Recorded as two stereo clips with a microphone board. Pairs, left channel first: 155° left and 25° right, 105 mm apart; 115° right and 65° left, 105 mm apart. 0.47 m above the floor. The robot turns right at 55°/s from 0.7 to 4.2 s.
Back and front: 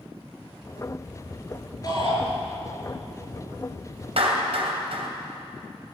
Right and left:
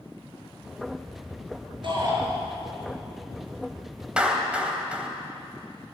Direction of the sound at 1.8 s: 105° left.